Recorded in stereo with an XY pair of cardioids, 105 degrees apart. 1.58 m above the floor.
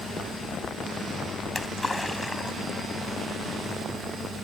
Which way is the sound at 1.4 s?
15° left.